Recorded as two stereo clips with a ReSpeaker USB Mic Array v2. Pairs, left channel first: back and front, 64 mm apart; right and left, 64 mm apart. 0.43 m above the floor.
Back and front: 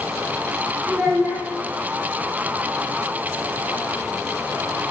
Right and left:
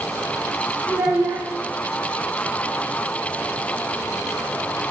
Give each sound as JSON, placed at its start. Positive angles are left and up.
{"t": 0.9, "sound": "a child speaking", "azimuth_deg": 40, "distance_m": 0.9}